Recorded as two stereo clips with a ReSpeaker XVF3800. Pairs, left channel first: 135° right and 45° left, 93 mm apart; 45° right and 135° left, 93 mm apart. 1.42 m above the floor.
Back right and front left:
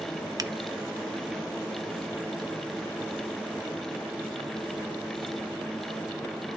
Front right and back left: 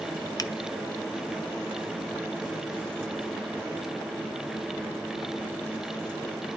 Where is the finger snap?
Straight ahead, 0.6 m.